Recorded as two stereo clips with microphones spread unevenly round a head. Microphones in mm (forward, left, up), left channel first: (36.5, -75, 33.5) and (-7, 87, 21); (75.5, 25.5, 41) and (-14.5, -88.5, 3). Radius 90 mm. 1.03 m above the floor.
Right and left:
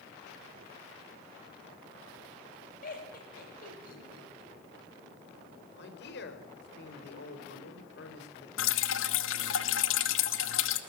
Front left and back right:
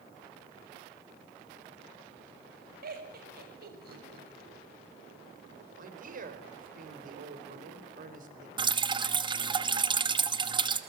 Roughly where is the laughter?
Behind right.